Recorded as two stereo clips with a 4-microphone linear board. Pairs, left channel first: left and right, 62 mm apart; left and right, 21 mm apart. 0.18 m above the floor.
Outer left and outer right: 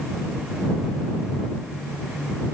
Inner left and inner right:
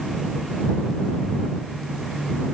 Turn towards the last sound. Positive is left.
No sound to turn to.